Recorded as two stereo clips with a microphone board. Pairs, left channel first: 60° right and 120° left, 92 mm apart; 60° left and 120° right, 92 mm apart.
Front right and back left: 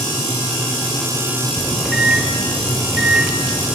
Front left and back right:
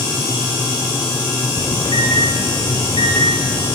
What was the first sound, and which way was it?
A microwave, 35° left.